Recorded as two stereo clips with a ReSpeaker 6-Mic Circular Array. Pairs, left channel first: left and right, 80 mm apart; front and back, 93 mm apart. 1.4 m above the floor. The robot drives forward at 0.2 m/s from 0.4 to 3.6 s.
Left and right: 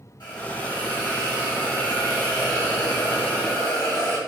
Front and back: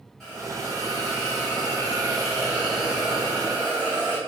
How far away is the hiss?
About 1.9 m.